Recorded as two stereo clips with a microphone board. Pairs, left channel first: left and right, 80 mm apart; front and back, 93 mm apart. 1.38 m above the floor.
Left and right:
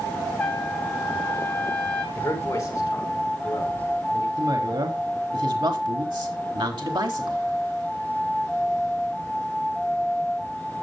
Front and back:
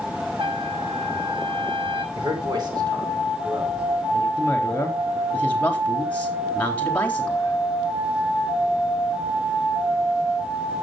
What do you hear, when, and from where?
0.4 s a trumpet: 160° left, 6 m
2.1 s a man speaking: 145° left, 5 m
4.4 s a woman speaking: 70° right, 4 m